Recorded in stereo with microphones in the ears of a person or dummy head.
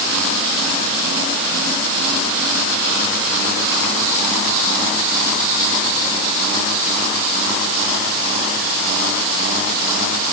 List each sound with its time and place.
Only background noise.